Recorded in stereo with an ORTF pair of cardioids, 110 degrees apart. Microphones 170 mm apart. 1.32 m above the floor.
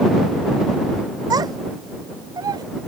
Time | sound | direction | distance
1.3 | a child speaking | 25° right | ?